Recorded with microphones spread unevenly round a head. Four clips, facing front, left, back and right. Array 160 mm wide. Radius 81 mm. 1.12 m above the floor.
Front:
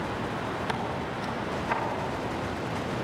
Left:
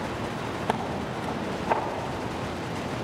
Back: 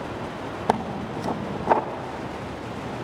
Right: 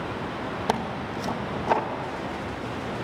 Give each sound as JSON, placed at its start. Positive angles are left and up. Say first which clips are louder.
{"t": 0.7, "sound": "tearing paper", "louder": "right 1 dB, back 6 dB", "azimuth_deg": -170, "distance_m": 1.5}